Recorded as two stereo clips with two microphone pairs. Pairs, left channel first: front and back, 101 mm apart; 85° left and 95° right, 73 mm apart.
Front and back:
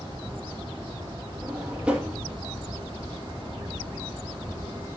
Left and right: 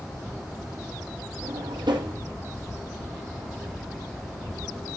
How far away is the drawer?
About 2.0 m.